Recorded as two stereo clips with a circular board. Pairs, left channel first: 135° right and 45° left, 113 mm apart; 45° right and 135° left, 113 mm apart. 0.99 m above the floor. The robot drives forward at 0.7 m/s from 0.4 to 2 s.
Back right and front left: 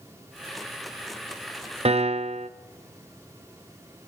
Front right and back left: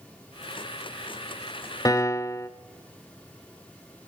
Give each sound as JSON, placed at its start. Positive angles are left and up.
{"t": 1.9, "sound": "a piano", "azimuth_deg": 15, "distance_m": 0.6}